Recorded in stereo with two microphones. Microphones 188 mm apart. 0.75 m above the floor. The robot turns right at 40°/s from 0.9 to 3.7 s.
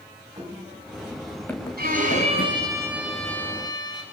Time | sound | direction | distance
0.4 | running footsteps | 25° right (ahead or behind) | 4 m
1.8 | a violin | 55° right | 7 m